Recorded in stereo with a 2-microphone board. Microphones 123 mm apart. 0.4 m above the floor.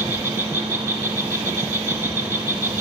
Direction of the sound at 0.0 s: 25° right (ahead or behind).